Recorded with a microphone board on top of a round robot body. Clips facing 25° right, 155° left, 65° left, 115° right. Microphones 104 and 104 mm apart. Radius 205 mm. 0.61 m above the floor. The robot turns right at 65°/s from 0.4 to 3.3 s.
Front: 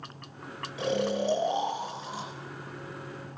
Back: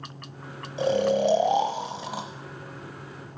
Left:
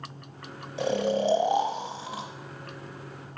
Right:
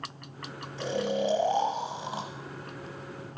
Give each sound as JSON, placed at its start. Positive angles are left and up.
{"t": 0.8, "sound": "snoring", "azimuth_deg": 95, "distance_m": 1.0}